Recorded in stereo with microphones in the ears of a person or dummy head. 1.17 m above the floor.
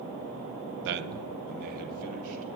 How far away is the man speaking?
About 0.6 m.